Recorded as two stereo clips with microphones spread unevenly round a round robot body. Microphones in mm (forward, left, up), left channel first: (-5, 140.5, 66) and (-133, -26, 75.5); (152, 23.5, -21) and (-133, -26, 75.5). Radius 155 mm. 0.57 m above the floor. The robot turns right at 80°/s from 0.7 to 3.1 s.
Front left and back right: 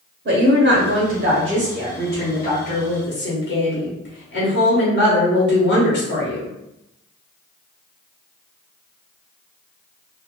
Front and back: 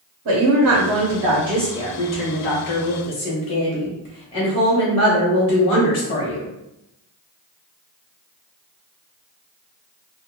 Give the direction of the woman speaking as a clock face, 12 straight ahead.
4 o'clock.